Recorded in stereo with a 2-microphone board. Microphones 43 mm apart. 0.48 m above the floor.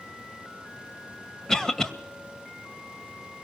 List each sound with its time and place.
1.5 s a cough: 15° left (ahead or behind), 2 m